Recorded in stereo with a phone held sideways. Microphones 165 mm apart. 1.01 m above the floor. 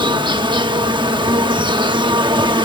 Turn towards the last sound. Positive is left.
turn(degrees=-30)  # may be behind; listen again after turning